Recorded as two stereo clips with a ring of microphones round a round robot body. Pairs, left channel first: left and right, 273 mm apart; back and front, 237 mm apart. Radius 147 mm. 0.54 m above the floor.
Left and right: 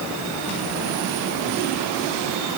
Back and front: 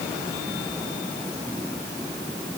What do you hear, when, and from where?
Only background noise.